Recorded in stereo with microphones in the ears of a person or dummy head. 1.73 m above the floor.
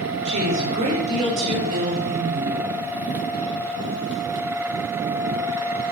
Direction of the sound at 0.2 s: 35° right (ahead or behind).